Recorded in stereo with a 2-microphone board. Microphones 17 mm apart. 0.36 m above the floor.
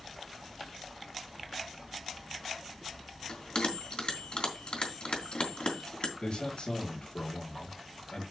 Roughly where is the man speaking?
Left.